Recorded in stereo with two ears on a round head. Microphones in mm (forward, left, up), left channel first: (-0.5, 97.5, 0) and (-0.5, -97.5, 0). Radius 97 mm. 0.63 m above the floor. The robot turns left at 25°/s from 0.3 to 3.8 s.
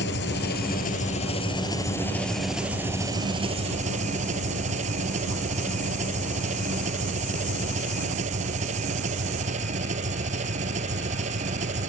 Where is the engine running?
55° left; by 11.9 s 35° right.